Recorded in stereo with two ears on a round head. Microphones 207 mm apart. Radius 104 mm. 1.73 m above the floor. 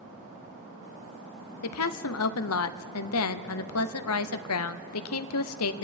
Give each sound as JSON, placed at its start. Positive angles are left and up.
{"t": 1.6, "sound": "a woman speaking", "side_deg": 65, "distance_m": 0.7}